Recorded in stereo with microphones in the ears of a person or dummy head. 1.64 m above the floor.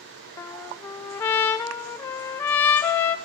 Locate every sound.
0.4 s a trumpet: 15° left (ahead or behind), 0.6 m